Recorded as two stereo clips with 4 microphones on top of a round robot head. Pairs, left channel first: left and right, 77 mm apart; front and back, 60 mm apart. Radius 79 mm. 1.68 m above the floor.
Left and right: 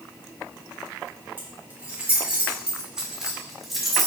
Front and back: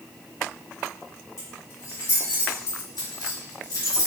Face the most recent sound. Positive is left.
turn(degrees=5)